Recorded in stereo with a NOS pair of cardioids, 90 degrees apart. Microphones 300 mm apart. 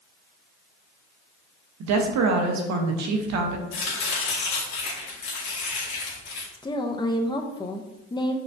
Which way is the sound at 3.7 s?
70° left.